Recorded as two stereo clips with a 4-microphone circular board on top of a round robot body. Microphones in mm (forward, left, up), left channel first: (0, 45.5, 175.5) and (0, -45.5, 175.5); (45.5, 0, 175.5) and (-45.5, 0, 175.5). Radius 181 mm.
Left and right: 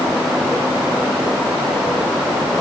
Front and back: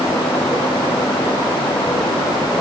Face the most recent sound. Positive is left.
No sound to turn to.